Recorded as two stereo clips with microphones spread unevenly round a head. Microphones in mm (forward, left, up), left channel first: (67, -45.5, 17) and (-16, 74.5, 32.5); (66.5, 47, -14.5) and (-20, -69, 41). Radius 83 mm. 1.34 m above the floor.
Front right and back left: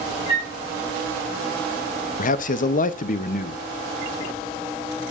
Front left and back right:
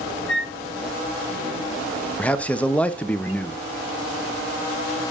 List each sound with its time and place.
0.3 s a flute: 70° left, 5 m
2.2 s a man speaking: 25° right, 0.6 m